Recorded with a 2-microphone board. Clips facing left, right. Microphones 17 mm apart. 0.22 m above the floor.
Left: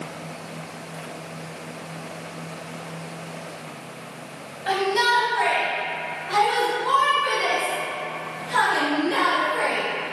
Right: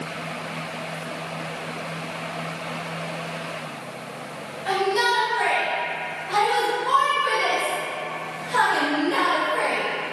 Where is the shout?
10° left (ahead or behind), 1.3 m; by 9.8 s 20° left (ahead or behind), 3.5 m.